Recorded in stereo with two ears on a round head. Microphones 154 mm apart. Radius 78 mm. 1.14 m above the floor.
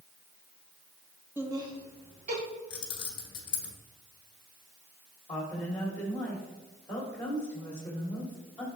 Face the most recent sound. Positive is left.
turn(degrees=5)  # may be behind; listen again after turning